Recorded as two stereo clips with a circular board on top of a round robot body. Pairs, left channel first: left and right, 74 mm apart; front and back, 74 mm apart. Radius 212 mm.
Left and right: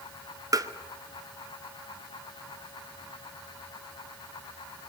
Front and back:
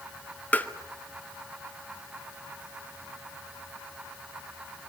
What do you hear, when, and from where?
0.5 s tapping: 65° right, 2 m